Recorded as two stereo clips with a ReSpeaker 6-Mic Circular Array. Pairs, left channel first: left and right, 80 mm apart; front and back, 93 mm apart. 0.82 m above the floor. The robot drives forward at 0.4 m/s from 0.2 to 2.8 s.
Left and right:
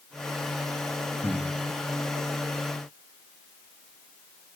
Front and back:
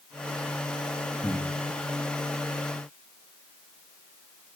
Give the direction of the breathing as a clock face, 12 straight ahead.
4 o'clock.